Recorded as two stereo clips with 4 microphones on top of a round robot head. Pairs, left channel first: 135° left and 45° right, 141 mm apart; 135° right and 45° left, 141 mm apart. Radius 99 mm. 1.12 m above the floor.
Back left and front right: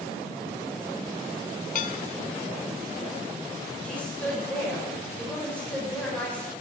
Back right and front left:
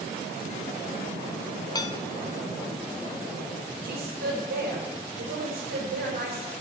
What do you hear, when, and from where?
1.8 s dishes clattering: 165° left, 1.0 m
3.8 s a woman speaking: 50° left, 5 m